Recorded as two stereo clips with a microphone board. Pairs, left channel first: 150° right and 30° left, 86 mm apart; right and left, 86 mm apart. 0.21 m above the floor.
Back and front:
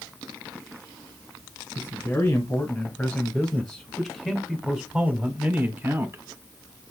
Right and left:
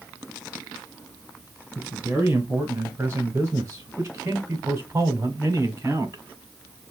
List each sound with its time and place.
1.8 s a man speaking: 160° left, 2.5 m; by 6.2 s 60° left, 1.8 m